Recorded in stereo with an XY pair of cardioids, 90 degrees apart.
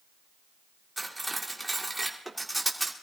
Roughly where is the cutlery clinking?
Ahead.